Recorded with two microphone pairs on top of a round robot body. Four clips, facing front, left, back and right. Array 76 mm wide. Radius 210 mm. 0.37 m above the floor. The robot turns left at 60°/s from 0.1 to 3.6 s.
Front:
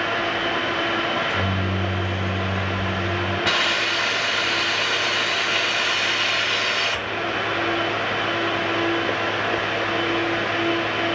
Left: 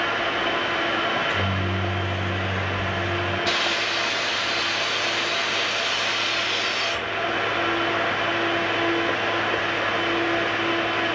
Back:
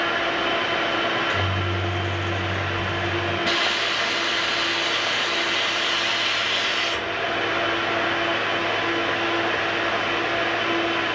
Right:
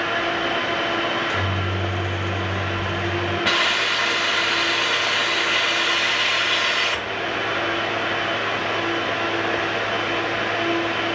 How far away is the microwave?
About 1.5 m.